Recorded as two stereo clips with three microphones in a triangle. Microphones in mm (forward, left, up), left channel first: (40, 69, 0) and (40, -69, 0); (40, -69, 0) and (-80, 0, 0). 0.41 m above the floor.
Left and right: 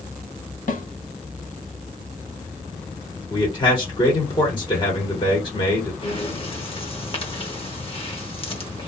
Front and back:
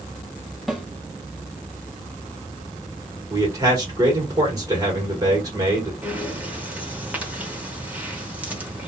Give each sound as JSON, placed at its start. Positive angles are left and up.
{"t": 0.7, "sound": "a snare drum", "azimuth_deg": 60, "distance_m": 0.7}
{"t": 3.3, "sound": "a man speaking", "azimuth_deg": 105, "distance_m": 1.4}
{"t": 6.0, "sound": "breathing", "azimuth_deg": 75, "distance_m": 0.9}